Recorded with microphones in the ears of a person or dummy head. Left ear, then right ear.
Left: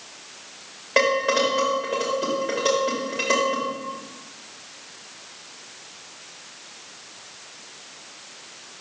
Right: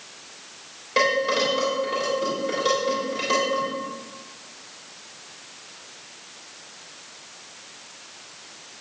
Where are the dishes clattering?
30° left (ahead or behind), 3 m.